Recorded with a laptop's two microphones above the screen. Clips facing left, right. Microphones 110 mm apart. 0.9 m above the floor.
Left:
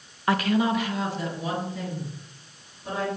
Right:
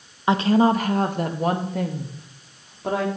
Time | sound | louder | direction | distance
0.3 | a woman speaking | right 5 dB | 20° right (ahead or behind) | 0.7 m